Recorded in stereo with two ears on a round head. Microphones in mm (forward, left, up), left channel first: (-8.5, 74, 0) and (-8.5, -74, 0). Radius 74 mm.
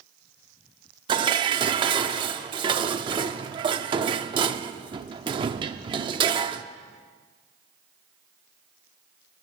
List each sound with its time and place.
1.1 s dishes clattering: 30° right (ahead or behind), 0.7 m